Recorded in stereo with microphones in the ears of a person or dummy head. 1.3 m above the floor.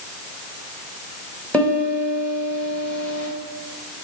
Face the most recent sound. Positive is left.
turn(degrees=5)  # may be behind; listen again after turning